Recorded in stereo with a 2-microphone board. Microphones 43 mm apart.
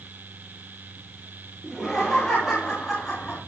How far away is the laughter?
About 3 m.